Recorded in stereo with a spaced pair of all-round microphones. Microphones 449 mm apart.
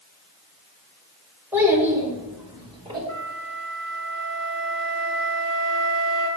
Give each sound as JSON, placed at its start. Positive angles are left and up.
{"t": 1.5, "sound": "a child speaking", "side_deg": -5, "distance_m": 3.0}
{"t": 3.1, "sound": "a flute", "side_deg": 25, "distance_m": 3.0}